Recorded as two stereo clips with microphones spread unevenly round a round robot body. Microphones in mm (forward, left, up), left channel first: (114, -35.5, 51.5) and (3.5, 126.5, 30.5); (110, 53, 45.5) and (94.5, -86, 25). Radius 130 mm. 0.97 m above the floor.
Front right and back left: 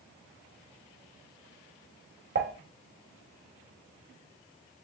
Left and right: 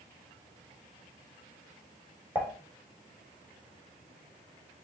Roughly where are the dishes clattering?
Behind.